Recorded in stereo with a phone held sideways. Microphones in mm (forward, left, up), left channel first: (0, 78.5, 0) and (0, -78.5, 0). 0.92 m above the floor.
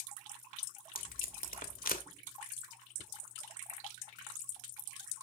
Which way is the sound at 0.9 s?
75° left (ahead or behind).